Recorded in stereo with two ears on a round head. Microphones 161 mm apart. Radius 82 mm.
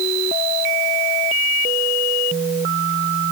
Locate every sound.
Only background noise.